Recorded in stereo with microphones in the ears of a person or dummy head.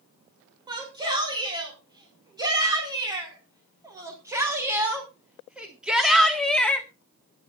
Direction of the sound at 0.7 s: 20° right (ahead or behind).